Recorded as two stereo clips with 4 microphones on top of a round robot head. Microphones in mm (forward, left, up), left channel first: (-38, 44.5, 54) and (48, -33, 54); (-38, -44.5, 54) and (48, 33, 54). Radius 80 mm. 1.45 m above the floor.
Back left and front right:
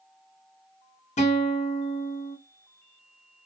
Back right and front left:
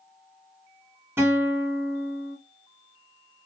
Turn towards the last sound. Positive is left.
turn(degrees=115)